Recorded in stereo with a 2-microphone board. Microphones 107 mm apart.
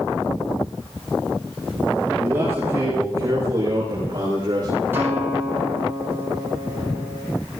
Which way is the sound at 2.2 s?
20° right (ahead or behind).